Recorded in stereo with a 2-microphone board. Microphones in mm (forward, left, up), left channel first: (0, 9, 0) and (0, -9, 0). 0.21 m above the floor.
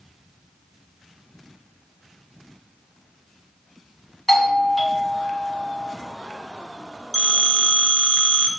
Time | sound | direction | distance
4.3 | a doorbell | 10° left (ahead or behind) | 2 m
7.1 | a phone ringing | 30° left (ahead or behind) | 2.5 m